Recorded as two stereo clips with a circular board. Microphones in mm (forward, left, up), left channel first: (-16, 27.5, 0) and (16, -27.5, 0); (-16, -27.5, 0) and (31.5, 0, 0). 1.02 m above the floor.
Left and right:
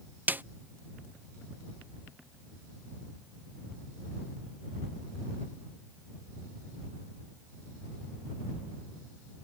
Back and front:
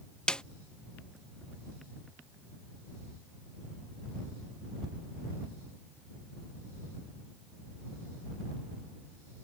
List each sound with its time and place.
0.3 s a snare drum: 90° right